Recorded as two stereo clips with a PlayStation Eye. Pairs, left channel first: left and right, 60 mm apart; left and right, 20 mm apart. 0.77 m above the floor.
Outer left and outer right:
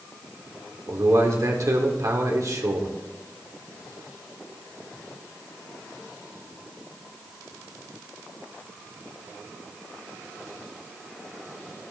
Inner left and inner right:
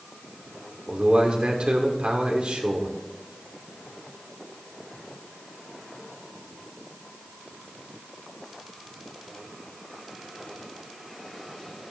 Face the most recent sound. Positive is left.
turn(degrees=-65)  # may be behind; listen again after turning